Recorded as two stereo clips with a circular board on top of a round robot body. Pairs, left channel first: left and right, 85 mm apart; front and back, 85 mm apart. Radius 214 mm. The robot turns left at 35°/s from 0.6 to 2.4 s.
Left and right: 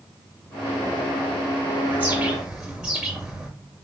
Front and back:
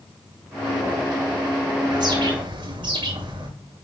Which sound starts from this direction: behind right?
A bird, at 1.9 s.